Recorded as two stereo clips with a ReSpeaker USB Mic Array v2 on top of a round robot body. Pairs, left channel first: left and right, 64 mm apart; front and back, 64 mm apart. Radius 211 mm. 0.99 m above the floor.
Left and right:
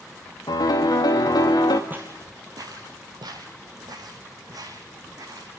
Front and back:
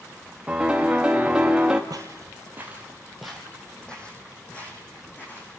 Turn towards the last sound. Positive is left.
turn(degrees=-65)